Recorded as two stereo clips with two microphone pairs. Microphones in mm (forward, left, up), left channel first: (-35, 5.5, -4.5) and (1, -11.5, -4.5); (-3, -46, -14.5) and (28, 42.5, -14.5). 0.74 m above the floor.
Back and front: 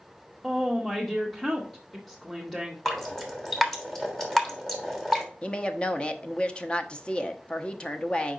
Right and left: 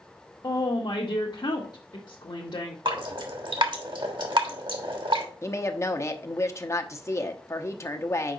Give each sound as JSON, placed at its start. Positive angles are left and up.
{"t": 0.4, "sound": "a woman speaking", "azimuth_deg": -125, "distance_m": 0.9}
{"t": 2.9, "sound": "dripping", "azimuth_deg": 70, "distance_m": 1.3}
{"t": 5.4, "sound": "a woman speaking", "azimuth_deg": -155, "distance_m": 0.7}